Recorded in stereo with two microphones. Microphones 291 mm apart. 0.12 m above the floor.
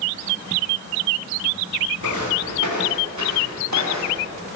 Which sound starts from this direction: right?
Footsteps, at 2.0 s.